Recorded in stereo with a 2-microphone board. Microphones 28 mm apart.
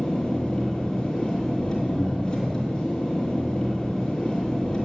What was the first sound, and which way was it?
An engine running, 20° left (ahead or behind).